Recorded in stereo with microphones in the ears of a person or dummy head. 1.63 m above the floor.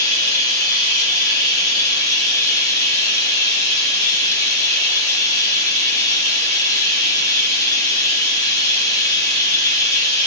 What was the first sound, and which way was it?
Running water, 15° left (ahead or behind).